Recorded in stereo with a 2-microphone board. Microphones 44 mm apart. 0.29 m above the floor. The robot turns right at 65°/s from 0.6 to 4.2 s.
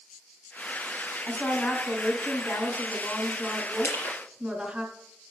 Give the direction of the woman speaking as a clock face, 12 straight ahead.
12 o'clock.